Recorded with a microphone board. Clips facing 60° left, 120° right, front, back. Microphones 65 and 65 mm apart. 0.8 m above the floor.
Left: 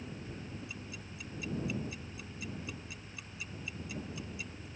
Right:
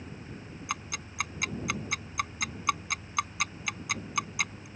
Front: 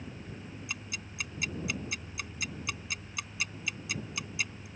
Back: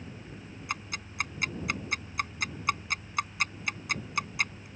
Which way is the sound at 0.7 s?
140° right.